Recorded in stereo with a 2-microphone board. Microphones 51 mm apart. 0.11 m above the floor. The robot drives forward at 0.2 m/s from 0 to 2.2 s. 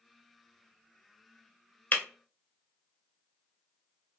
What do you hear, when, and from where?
1.9 s breaking glass: 30° left (ahead or behind), 0.6 m